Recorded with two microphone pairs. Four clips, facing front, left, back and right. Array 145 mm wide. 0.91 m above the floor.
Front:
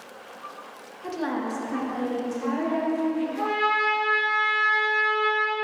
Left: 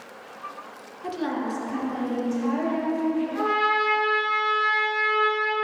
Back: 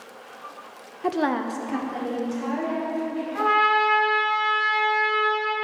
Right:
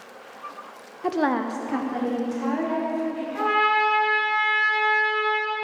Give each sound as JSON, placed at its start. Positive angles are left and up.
{"t": 1.0, "sound": "a woman speaking", "azimuth_deg": -145, "distance_m": 0.6}
{"t": 3.4, "sound": "a trumpet", "azimuth_deg": -175, "distance_m": 3.0}